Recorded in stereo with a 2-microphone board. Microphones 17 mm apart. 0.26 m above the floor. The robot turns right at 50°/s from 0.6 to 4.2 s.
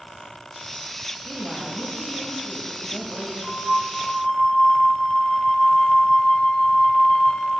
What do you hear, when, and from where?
1.2 s a woman speaking: 35° left, 1.0 m; by 3.3 s 140° left, 1.0 m
3.4 s a flute: 70° left, 0.9 m; by 7.5 s 110° left, 0.9 m